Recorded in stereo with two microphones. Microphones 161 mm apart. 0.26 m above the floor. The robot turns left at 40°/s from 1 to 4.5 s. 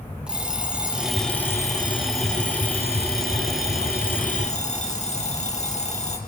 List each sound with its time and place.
0.3 s an alarm clock: 175° right, 4.5 m; by 6.2 s 45° left, 4.5 m